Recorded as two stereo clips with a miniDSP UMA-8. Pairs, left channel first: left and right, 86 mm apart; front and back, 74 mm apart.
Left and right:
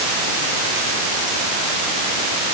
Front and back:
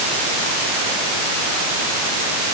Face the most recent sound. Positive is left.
No sound to turn to.